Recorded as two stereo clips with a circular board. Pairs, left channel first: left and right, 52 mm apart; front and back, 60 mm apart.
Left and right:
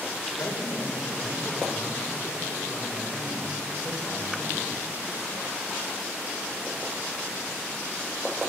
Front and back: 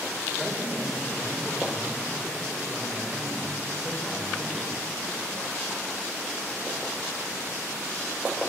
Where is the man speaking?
85° left, 6.5 m.